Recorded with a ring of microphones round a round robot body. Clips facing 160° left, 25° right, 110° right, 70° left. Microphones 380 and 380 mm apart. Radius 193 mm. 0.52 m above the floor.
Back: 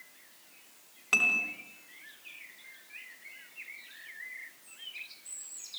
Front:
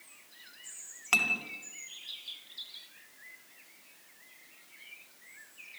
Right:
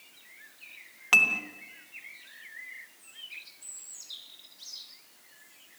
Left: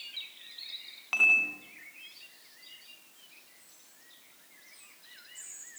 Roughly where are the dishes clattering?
Right.